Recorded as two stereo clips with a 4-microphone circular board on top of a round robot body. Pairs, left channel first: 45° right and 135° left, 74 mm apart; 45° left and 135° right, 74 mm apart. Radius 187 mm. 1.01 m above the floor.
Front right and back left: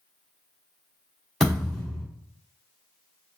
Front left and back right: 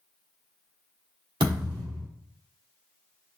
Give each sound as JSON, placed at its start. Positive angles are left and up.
{"t": 1.4, "sound": "a thud", "azimuth_deg": -140, "distance_m": 1.1}